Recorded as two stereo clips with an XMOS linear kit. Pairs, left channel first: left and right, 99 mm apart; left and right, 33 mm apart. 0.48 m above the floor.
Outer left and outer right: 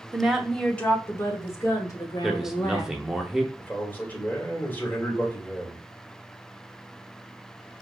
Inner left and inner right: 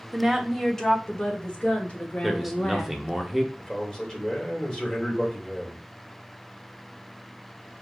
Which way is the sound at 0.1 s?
15° right (ahead or behind).